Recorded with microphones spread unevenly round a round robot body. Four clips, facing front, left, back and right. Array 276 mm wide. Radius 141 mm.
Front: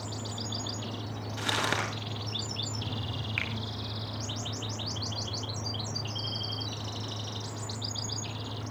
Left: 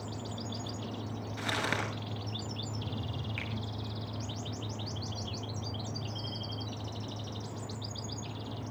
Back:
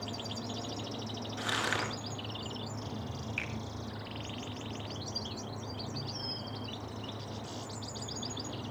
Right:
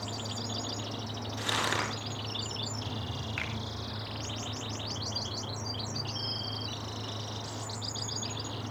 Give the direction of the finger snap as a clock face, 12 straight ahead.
1 o'clock.